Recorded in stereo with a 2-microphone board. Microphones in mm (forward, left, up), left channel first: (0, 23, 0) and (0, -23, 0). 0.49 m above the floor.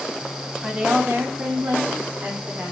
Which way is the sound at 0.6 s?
15° right (ahead or behind).